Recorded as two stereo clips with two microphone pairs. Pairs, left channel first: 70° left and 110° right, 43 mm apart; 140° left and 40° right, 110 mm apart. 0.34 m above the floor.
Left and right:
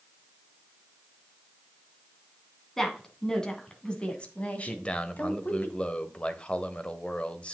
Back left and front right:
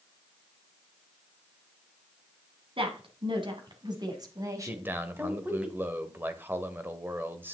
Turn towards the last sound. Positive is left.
turn(degrees=20)